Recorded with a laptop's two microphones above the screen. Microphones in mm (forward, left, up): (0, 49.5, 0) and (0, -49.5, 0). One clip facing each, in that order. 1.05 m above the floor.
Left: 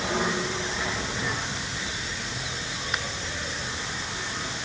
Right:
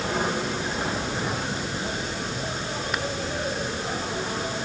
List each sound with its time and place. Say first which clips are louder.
0.0 s an insect: right 1 dB; 45° right (ahead or behind)